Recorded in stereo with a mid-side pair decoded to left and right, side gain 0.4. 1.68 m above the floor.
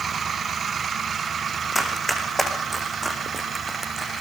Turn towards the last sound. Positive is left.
turn(degrees=-10)